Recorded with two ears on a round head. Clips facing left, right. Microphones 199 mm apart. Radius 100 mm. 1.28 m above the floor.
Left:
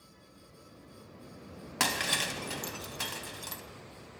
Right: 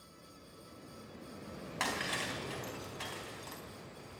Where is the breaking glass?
60° left (ahead or behind), 3 m.